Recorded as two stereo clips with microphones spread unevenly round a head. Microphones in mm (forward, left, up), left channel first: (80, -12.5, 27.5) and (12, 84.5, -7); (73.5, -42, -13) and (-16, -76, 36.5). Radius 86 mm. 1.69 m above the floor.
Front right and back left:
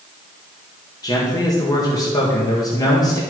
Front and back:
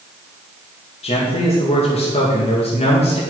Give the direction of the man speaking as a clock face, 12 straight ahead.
12 o'clock.